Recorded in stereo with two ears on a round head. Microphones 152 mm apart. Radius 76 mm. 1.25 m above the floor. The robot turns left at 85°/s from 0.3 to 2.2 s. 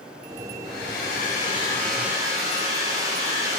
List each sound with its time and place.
0.6 s a hair dryer: 110° left, 3.5 m; by 3.6 s 20° right, 3.5 m